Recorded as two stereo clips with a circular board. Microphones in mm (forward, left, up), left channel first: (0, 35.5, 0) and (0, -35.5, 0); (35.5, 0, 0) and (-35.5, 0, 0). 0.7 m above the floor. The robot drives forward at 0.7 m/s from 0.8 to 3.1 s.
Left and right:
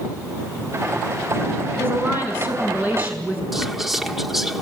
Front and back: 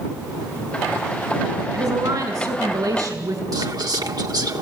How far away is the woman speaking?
About 5.5 m.